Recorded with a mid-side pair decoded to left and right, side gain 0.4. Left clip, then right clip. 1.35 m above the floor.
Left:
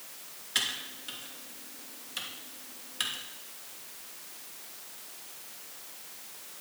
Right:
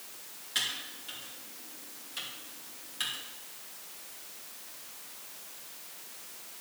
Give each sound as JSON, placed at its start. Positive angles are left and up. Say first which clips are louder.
{"t": 0.6, "sound": "typing on a keyboard", "louder": "left 2 dB", "azimuth_deg": 40, "distance_m": 2.5}